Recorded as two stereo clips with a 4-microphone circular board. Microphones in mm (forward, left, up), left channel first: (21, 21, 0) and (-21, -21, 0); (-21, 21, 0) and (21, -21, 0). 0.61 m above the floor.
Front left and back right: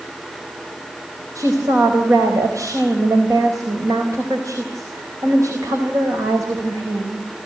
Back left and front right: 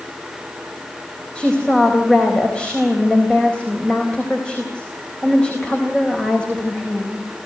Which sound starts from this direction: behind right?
A woman speaking, at 1.4 s.